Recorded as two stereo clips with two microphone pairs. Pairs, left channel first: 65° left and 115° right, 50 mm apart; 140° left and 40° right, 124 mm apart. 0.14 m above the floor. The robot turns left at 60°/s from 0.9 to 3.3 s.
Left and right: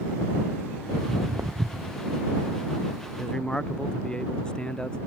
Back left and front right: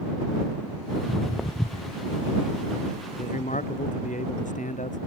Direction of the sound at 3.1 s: 150° left.